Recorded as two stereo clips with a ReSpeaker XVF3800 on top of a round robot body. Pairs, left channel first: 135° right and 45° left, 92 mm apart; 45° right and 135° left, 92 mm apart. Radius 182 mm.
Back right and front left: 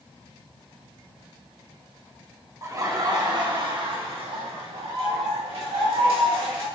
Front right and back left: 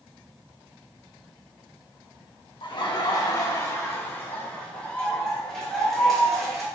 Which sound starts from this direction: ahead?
Laughter, at 2.6 s.